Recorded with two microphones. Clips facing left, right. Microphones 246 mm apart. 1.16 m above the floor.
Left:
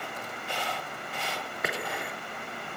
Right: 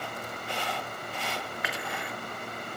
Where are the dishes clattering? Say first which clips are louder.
Left 3 dB; 45° left (ahead or behind), 2.5 m.